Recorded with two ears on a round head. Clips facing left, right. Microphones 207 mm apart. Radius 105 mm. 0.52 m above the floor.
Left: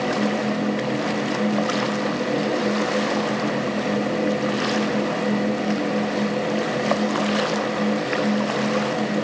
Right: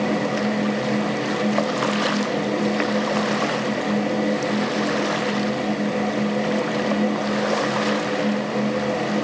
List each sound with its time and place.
Only background noise.